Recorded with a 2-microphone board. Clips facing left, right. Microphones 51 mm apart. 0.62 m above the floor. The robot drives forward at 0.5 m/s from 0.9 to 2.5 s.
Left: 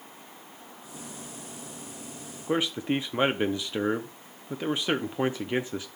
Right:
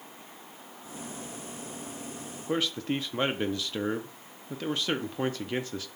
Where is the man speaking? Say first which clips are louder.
Left 3 dB; 20° left (ahead or behind), 0.6 m.